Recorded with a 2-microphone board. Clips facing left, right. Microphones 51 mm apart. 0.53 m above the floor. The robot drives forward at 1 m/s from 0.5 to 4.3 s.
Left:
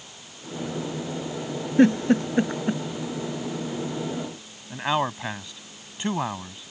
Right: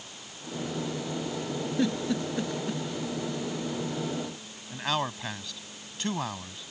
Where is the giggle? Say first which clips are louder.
Left 11 dB; 45° left (ahead or behind); by 2.8 s 40° left (ahead or behind).